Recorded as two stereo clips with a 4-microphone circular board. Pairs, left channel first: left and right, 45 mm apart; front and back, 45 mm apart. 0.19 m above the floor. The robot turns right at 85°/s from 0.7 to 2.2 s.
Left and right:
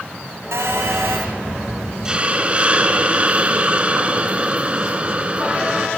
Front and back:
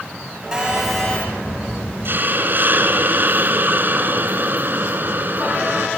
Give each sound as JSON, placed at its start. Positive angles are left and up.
{"t": 0.5, "sound": "a phone buzzing", "azimuth_deg": -105, "distance_m": 6.5}
{"t": 2.0, "sound": "a hiss", "azimuth_deg": -160, "distance_m": 2.5}